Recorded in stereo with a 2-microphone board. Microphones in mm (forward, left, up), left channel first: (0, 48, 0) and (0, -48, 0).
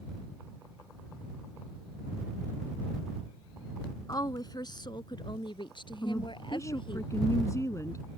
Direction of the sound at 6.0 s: 35° left (ahead or behind).